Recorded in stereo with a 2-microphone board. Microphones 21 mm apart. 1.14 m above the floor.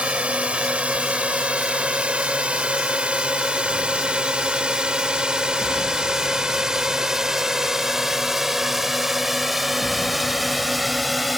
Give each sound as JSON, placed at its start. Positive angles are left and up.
{"t": 0.0, "sound": "a drone", "side_deg": -85}